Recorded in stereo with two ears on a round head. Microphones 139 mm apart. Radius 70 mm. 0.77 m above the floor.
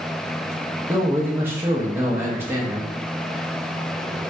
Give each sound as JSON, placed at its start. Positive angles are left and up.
{"t": 0.9, "sound": "a man speaking", "side_deg": -15, "distance_m": 0.6}